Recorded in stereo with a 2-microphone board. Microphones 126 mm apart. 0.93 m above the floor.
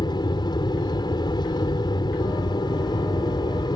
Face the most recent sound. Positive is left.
turn(degrees=35)  # may be behind; listen again after turning